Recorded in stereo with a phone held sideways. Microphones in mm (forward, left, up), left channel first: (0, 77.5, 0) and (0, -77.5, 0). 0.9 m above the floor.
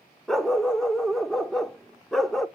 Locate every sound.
0.3 s a dog barking: centre (ahead or behind), 0.7 m